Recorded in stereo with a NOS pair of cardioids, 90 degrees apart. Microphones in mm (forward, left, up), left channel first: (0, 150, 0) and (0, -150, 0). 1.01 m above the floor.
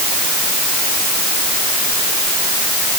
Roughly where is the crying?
I don't hear crying.